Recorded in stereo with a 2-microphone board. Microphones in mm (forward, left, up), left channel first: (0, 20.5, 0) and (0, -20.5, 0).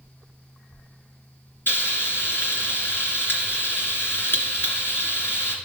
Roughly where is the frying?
Left.